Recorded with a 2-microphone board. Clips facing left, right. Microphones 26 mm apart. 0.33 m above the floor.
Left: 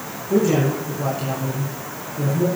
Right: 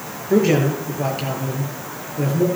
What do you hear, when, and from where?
0.3 s a man speaking: 45° right (ahead or behind), 6.5 m